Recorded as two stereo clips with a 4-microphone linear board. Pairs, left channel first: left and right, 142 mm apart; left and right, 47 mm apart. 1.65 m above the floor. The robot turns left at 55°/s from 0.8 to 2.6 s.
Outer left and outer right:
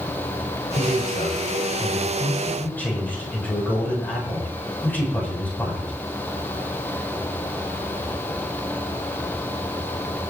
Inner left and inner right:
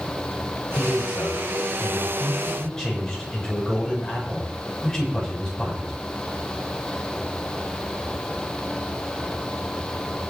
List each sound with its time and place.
0.8 s a man speaking: 110° left, 6.5 m; by 5.9 s 10° left, 6.5 m